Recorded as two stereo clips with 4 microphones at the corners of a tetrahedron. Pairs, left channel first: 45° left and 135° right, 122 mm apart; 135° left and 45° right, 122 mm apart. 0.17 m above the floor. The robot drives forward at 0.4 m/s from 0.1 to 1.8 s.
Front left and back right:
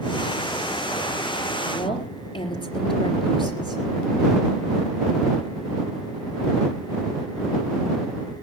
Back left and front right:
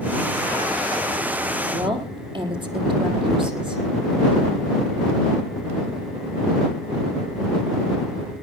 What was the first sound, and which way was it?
A woman speaking, straight ahead.